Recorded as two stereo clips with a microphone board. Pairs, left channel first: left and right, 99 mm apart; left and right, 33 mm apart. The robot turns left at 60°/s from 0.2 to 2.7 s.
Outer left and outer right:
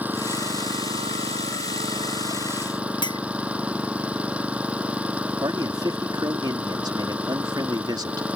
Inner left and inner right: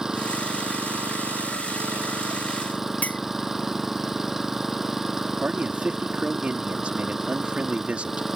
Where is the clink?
55° left (ahead or behind).